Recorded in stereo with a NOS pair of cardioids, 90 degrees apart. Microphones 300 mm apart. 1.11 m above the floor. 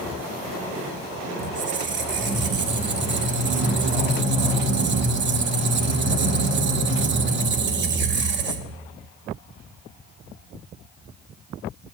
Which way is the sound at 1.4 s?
40° right.